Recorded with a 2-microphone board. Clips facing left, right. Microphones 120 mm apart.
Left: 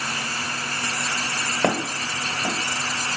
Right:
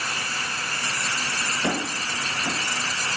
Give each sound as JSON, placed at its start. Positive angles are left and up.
{"t": 1.6, "sound": "footsteps", "side_deg": 60, "distance_m": 1.0}